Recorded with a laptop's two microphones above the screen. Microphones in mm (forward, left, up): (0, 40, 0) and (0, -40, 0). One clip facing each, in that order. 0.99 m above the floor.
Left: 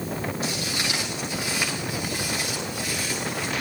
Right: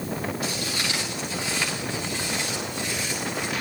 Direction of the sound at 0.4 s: 25° left (ahead or behind).